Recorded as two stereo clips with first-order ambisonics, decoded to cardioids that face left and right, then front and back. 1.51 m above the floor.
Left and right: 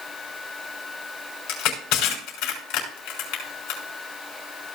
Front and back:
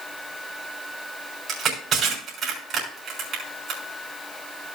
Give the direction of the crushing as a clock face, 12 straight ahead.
8 o'clock.